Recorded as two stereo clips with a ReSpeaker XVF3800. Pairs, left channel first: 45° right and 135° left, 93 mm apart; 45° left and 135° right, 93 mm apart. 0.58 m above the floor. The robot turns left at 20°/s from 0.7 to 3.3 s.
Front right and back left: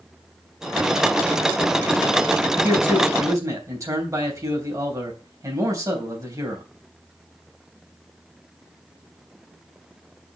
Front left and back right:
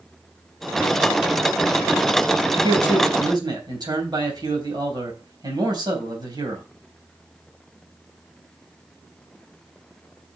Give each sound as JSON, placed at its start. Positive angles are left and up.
{"t": 2.6, "sound": "a man speaking", "azimuth_deg": -160, "distance_m": 3.5}